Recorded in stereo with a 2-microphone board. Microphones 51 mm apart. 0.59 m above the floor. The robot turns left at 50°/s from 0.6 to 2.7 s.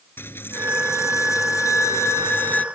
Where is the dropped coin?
135° left; by 2.6 s 30° left.